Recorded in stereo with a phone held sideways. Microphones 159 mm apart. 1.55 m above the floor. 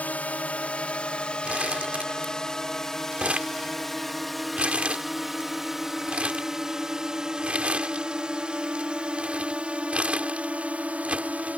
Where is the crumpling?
10° right (ahead or behind).